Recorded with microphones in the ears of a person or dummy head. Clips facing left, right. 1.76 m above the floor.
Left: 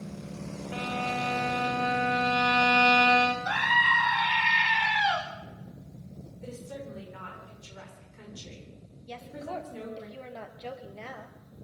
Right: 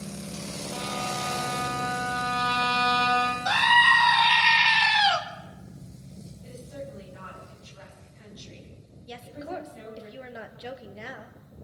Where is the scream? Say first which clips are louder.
Right 5 dB; 60° right (ahead or behind), 2.5 m.